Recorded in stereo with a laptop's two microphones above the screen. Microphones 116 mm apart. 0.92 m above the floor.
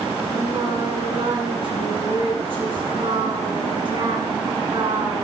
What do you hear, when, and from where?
0.3 s singing: 50° right (ahead or behind), 7 m